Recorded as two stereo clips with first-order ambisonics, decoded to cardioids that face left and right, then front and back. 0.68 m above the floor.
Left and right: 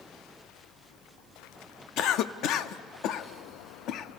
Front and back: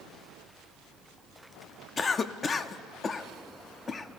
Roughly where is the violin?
No violin in this recording.